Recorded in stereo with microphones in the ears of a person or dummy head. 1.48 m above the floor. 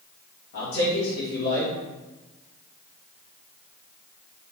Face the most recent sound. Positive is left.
turn(degrees=75)  # may be behind; listen again after turning